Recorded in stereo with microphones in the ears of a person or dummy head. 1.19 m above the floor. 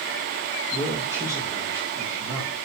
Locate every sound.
0.7 s a man speaking: 10° right (ahead or behind), 2.5 m